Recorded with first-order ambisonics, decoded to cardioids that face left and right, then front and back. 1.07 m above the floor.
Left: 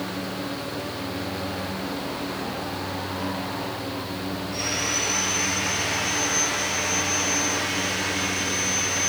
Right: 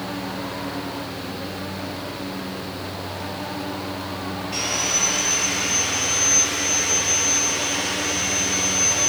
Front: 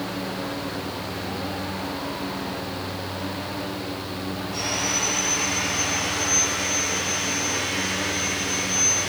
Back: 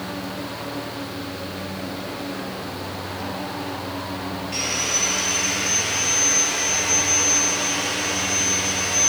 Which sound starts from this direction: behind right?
Sawing, at 4.5 s.